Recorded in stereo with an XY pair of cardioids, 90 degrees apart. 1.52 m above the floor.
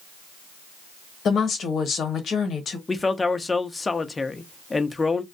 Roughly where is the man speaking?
Ahead left.